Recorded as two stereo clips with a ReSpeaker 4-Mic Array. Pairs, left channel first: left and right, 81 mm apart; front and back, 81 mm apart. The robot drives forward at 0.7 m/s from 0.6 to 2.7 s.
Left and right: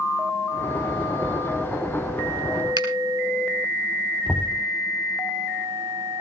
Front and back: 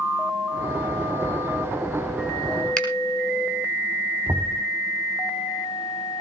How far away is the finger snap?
About 3.5 m.